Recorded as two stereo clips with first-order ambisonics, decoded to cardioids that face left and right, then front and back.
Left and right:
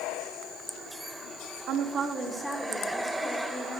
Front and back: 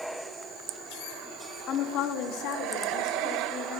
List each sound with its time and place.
1.7 s a woman speaking: 50° right, 0.8 m; by 3.8 s 35° left, 2 m